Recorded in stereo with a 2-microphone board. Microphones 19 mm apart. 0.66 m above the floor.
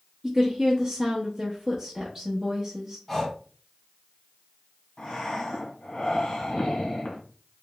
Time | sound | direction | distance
0.2 | a woman speaking | 10° right (ahead or behind) | 1.0 m
3.1 | breathing | 15° left (ahead or behind) | 1.2 m
5.0 | breathing | 55° left (ahead or behind) | 1.5 m